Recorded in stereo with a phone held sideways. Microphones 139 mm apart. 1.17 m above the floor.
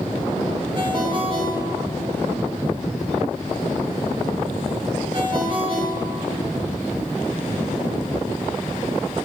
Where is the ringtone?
35° right (ahead or behind), 1.7 m.